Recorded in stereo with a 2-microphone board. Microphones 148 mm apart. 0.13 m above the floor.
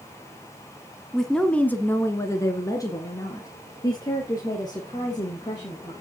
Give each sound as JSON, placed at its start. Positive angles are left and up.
{"t": 1.1, "sound": "a woman speaking", "side_deg": 0, "distance_m": 1.2}